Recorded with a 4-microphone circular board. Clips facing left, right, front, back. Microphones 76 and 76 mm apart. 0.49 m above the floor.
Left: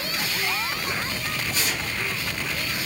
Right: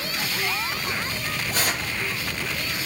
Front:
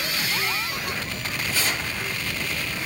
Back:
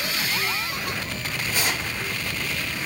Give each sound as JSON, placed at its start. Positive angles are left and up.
{"t": 1.5, "sound": "tearing paper", "azimuth_deg": -110, "distance_m": 4.0}